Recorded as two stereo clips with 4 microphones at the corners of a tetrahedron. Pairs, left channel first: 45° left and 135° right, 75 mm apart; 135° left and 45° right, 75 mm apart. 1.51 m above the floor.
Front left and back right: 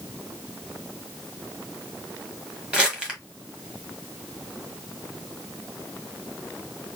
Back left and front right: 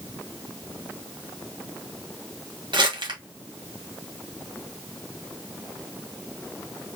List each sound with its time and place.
2.7 s crumpling: 55° right, 1.5 m